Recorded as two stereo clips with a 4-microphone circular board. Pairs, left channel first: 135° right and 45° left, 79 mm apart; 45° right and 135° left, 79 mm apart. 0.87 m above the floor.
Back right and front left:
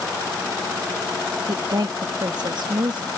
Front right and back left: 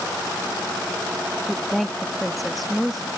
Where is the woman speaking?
45° left.